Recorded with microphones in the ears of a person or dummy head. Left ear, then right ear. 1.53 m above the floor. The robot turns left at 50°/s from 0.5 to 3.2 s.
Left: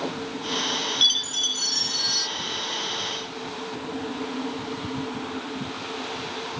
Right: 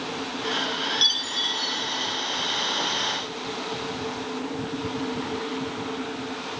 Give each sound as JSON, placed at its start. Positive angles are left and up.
{"t": 1.0, "sound": "a chime", "azimuth_deg": 165}